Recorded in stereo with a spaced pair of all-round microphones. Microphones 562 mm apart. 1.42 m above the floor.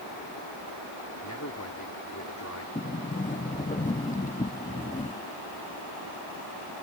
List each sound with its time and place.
1.2 s a man speaking: 30° left (ahead or behind)
2.8 s a sliding door: 15° left (ahead or behind)